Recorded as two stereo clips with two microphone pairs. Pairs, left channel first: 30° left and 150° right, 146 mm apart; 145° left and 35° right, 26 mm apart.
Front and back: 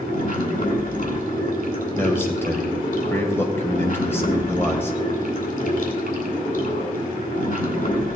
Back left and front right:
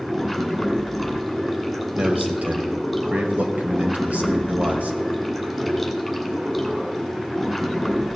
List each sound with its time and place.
0.0 s running water: 50° left, 2.5 m
1.9 s a man speaking: 45° right, 2 m